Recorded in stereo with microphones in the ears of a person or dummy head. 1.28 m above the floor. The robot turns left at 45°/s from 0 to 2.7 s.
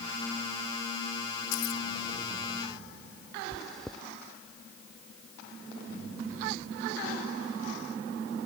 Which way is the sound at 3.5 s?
5° left (ahead or behind).